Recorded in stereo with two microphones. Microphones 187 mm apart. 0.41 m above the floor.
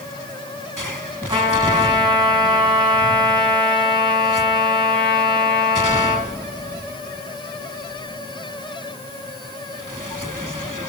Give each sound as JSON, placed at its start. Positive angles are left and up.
{"t": 1.3, "sound": "a trumpet", "side_deg": -30, "distance_m": 3.5}